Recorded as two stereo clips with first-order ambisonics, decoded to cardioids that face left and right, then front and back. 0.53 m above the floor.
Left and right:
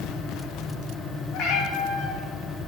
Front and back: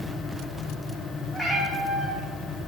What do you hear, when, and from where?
1.3 s a cat meowing: 90° left, 1.1 m